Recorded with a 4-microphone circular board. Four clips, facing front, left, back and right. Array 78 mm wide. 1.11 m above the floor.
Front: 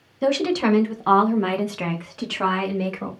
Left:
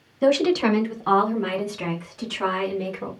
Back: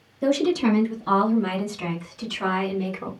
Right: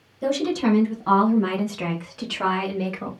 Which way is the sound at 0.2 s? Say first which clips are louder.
Left 3 dB, even; 50° left.